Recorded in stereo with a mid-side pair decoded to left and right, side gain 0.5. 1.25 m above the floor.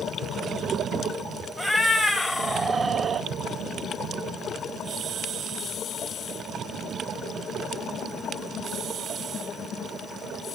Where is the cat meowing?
15° left, 1.5 m; by 3.3 s 45° right, 1.0 m.